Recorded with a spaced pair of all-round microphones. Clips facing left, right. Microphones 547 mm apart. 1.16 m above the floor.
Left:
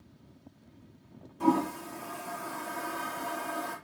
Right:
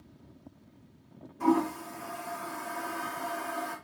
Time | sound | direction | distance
1.4 | a toilet flushing | 60° left (ahead or behind) | 1.1 m